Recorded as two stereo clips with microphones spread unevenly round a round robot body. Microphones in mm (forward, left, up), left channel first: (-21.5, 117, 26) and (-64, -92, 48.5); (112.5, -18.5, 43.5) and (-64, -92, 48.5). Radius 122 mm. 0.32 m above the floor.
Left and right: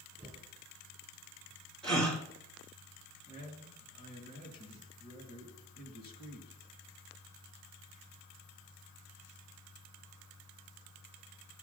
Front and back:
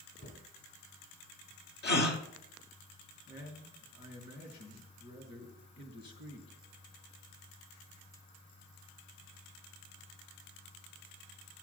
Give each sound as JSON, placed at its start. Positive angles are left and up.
{"t": 0.2, "sound": "a cupboard door", "azimuth_deg": -20, "distance_m": 5.5}
{"t": 1.8, "sound": "a gasp", "azimuth_deg": -10, "distance_m": 1.9}
{"t": 3.3, "sound": "a man speaking", "azimuth_deg": 40, "distance_m": 3.5}